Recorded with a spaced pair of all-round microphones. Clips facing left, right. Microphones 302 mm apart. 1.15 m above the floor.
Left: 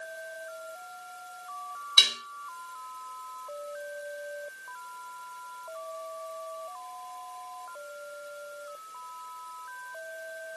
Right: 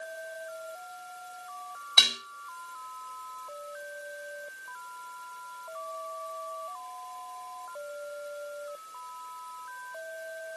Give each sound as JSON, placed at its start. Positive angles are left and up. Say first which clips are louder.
{"t": 2.0, "sound": "dishes clattering", "louder": "right 3 dB", "side_deg": -65, "distance_m": 6.0}